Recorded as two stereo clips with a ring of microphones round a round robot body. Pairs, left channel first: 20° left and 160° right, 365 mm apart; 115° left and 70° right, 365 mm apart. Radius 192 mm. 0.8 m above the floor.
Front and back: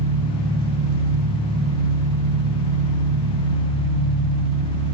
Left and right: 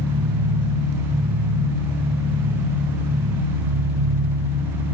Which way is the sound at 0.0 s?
120° right.